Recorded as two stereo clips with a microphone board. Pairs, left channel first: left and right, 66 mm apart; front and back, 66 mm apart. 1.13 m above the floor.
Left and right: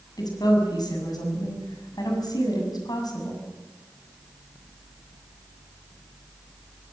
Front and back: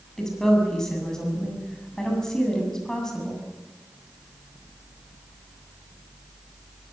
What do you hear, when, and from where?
0.2 s a woman speaking: 80° left, 7 m